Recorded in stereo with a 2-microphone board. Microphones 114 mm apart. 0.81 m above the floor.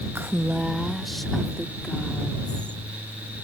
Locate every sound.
0.1 s a woman speaking: 20° right (ahead or behind); by 2.8 s 10° left (ahead or behind)